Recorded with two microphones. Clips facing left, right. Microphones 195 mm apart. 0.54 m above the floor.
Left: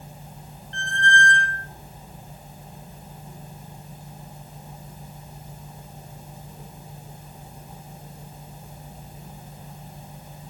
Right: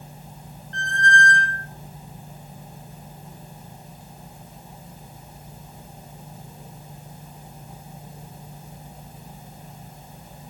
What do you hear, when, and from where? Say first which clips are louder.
0.7 s a squeak: right 1 dB; 40° right (ahead or behind), 0.9 m